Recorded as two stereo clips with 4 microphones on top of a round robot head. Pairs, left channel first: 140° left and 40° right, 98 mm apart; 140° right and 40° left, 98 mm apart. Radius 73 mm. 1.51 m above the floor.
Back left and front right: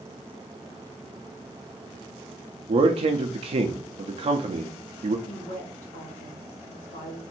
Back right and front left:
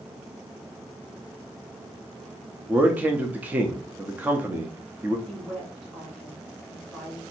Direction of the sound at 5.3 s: 125° left.